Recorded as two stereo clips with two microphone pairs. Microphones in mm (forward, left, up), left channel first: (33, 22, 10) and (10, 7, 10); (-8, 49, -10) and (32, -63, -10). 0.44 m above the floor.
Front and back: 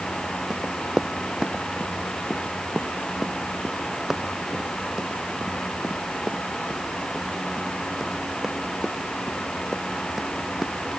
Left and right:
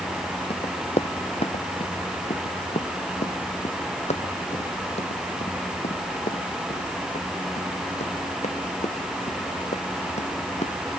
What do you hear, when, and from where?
0.5 s running footsteps: 145° left; by 11.0 s 125° left